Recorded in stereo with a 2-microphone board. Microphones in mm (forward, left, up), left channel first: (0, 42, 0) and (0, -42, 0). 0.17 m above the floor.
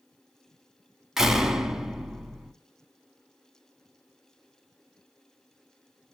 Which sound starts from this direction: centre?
A door slam, at 1.2 s.